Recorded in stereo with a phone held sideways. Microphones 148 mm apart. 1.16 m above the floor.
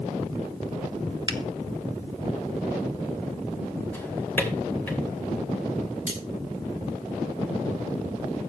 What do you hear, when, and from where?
1.3 s a finger snap: 30° right (ahead or behind), 0.9 m
3.9 s a drawer: 15° left (ahead or behind), 3 m
6.1 s cutlery clinking: 15° right (ahead or behind), 5.5 m